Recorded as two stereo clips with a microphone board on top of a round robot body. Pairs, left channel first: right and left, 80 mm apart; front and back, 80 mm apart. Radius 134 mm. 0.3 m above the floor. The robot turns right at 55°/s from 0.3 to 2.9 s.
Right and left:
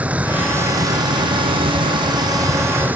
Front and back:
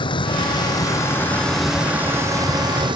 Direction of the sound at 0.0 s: 15° left.